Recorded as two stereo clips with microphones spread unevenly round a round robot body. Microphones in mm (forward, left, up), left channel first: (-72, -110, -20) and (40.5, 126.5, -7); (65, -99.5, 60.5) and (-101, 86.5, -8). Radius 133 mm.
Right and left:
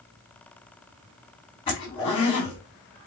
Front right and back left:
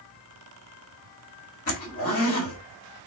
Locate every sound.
1.7 s a zipper: 60° right, 1.4 m